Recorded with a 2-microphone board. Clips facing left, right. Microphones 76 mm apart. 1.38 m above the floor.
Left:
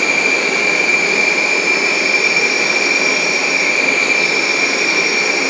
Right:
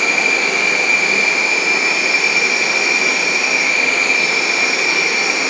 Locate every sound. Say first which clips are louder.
0.0 s an insect: left 1 dB; 65° left (ahead or behind), 1.8 m